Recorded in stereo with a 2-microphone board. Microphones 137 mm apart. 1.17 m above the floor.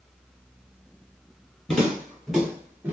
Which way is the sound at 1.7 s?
5° left (ahead or behind).